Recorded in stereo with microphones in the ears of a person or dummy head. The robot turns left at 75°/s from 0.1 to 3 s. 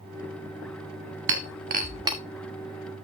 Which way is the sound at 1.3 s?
60° right (ahead or behind).